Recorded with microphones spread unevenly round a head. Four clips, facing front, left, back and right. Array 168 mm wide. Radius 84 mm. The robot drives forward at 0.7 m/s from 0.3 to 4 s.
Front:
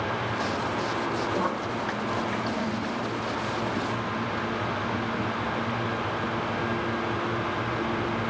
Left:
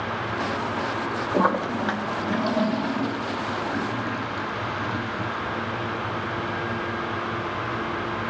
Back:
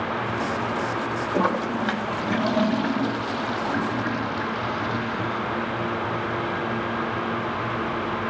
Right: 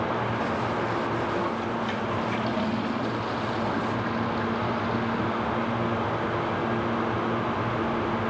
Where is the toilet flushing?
115° left, 1.0 m; by 5.4 s 160° left, 2.5 m.